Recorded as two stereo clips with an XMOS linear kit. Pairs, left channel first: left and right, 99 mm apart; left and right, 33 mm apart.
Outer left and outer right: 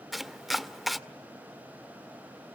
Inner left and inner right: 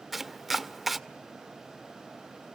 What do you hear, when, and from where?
0.1 s chopping: centre (ahead or behind), 0.6 m